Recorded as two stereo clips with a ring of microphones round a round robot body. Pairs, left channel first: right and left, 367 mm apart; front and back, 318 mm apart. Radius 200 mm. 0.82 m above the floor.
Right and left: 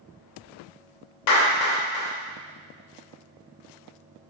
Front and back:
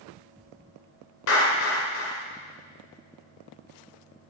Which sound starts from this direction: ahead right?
A clap, at 1.3 s.